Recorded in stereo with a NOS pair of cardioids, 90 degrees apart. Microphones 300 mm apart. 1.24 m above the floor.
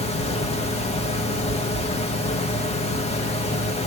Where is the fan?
20° left, 1.2 m.